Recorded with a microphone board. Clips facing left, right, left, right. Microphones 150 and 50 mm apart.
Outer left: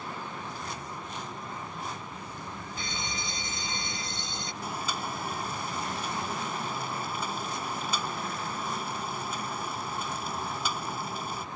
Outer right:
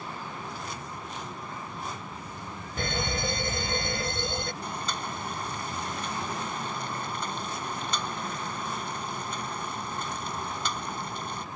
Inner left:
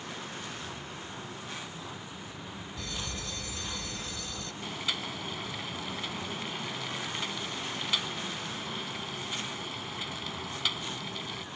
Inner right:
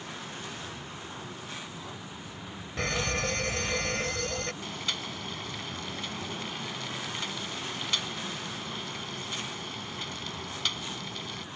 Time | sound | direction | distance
2.8 | a fire alarm | 65° right (ahead or behind) | ?
4.6 | boiling | 5° left (ahead or behind) | ?